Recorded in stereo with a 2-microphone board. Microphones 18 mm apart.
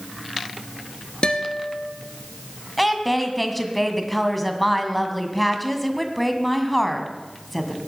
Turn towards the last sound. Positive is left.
turn(degrees=5)  # may be behind; listen again after turning